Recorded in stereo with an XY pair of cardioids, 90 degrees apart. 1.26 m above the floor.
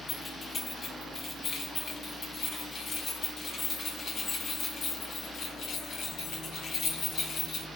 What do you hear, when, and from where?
0.1 s keys jangling: 50° left, 9 m; by 7.7 s 80° left, 8 m